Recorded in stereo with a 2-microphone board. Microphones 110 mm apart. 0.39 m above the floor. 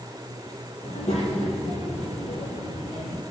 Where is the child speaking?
75° left (ahead or behind), 7 m.